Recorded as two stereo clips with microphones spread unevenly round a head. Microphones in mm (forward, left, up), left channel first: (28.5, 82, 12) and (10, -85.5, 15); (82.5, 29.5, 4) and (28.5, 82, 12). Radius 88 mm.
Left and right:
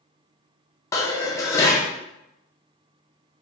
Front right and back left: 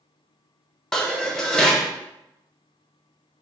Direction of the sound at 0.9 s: 40° left.